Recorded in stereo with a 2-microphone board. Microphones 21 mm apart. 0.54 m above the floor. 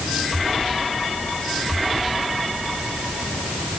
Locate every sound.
Only background noise.